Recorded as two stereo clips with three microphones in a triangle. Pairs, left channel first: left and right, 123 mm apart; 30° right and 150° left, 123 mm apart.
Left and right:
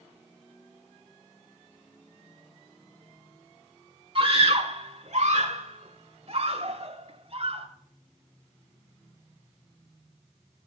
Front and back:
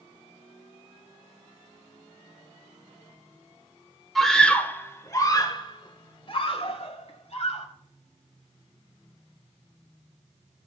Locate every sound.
4.2 s a scream: 120° right, 1.4 m; by 7.7 s 55° right, 2.5 m